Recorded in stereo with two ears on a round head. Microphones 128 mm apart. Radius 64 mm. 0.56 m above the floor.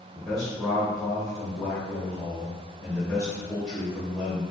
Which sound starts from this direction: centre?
A man speaking, at 0.1 s.